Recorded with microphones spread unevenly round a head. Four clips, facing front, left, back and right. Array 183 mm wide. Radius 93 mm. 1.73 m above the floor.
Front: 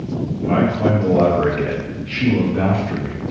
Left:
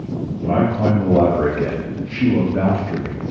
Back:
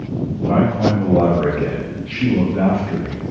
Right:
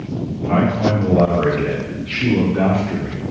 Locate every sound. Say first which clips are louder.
0.4 s a man speaking: right 1 dB, back 1 dB; 110° left, 4.5 m; by 3.2 s 90° left, 3.5 m